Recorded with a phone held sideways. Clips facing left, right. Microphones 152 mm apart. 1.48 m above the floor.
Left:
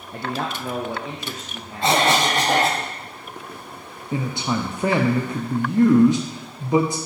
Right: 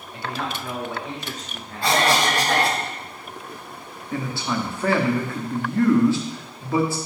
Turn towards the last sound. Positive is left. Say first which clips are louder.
# left 2 dB
turn(degrees=20)  # may be behind; listen again after turning